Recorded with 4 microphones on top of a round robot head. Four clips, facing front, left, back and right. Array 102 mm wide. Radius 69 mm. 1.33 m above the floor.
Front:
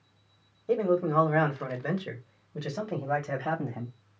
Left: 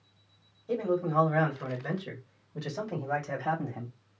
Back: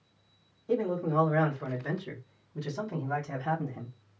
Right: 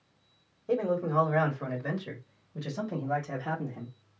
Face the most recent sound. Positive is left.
turn(degrees=25)